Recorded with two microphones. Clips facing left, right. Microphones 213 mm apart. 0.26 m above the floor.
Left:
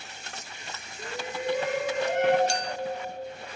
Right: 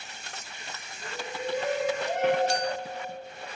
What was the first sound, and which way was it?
A shout, 70° left (ahead or behind).